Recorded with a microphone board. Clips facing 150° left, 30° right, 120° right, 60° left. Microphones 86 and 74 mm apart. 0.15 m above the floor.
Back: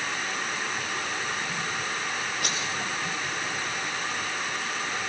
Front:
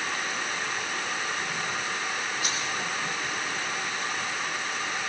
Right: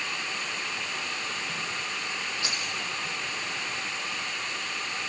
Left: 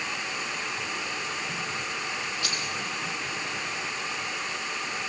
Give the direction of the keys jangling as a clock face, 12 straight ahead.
6 o'clock.